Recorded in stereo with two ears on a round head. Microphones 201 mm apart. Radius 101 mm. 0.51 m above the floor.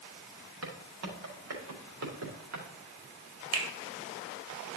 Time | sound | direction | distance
0.6 | footsteps | 70° right (ahead or behind) | 5 m
3.5 | a finger snap | 65° right (ahead or behind) | 2.5 m